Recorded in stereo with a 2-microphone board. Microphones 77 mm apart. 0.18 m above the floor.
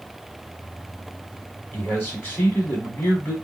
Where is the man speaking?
25° left (ahead or behind), 1.5 m.